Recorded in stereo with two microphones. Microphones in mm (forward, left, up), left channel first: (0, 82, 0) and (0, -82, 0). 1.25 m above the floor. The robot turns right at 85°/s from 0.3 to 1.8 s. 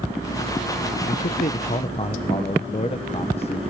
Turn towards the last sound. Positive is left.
turn(degrees=135)